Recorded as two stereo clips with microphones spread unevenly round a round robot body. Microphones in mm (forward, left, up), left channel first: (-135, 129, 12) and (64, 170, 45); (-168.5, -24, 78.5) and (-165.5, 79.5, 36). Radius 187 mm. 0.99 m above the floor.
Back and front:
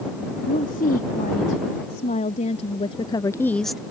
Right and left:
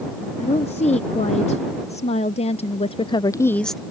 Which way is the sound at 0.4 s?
115° right.